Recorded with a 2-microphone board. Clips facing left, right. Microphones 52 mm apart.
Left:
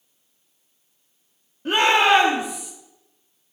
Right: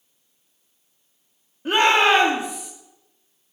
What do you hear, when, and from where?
1.6 s a shout: 5° right (ahead or behind), 2.5 m; by 2.7 s 20° right (ahead or behind), 3 m